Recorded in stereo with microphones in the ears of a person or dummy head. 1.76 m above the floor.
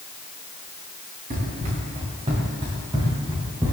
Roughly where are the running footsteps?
Right.